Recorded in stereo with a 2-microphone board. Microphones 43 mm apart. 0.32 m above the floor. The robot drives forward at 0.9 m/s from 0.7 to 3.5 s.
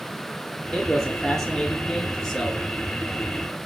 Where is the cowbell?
I don't hear a cowbell.